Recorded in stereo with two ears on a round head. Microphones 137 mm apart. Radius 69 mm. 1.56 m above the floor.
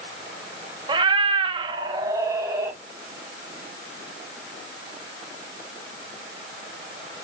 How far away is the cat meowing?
About 1.1 m.